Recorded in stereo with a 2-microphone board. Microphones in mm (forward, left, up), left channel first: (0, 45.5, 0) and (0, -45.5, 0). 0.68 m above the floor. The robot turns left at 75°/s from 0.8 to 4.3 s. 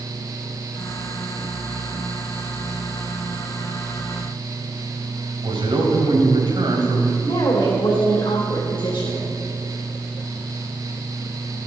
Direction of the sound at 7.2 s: 70° left (ahead or behind).